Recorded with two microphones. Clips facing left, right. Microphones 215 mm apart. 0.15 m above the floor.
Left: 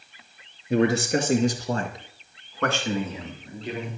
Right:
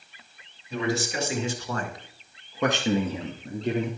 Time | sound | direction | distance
0.7 | a man speaking | 60° left (ahead or behind) | 2.5 m